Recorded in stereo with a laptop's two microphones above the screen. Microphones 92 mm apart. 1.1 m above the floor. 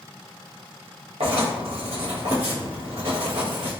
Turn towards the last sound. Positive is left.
turn(degrees=-80)